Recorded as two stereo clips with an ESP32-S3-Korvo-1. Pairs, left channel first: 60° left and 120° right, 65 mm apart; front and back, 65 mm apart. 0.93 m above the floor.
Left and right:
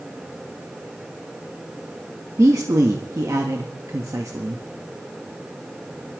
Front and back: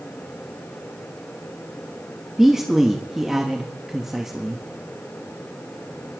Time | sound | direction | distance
2.4 | a man speaking | 95° right | 1.4 m